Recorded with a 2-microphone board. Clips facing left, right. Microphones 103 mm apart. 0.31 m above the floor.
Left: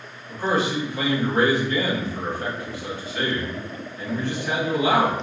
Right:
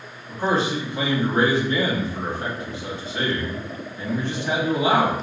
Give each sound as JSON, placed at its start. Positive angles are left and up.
{"t": 0.3, "sound": "a man speaking", "side_deg": -30, "distance_m": 1.6}